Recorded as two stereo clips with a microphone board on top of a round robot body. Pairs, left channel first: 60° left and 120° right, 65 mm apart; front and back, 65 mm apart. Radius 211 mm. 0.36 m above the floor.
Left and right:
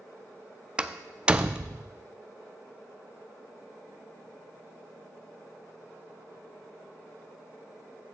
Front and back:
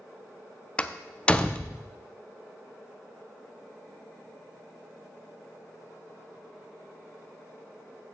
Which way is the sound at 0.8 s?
60° right.